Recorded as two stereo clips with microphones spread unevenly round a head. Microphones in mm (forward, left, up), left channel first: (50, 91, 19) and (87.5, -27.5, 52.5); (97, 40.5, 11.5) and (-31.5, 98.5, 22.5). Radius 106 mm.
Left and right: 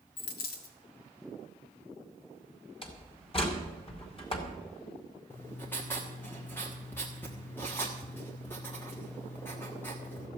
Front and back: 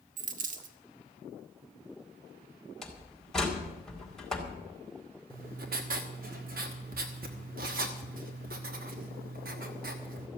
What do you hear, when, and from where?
0.2 s a dropped coin: 140° left, 1.4 m
2.8 s a door slam: 65° left, 4 m
5.3 s writing: 165° right, 1.2 m